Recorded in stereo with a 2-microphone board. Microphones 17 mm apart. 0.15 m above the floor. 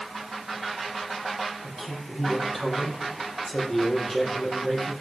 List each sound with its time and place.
1.6 s a man speaking: 20° left (ahead or behind), 4 m